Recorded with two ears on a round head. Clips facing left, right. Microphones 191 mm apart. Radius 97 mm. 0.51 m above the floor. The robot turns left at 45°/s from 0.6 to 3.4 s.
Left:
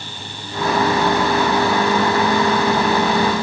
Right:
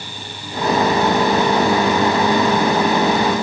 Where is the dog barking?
No dog barking in this recording.